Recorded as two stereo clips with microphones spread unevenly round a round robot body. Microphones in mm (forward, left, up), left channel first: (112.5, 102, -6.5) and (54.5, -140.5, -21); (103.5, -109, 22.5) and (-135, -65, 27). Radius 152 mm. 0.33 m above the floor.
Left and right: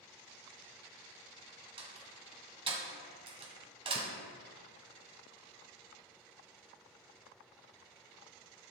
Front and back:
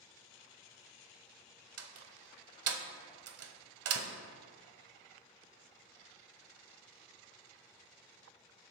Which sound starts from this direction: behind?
A door slam, at 1.8 s.